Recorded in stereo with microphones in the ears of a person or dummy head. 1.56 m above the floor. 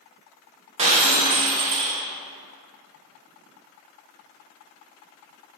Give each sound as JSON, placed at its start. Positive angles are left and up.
{"t": 0.8, "sound": "breaking glass", "side_deg": -30, "distance_m": 1.2}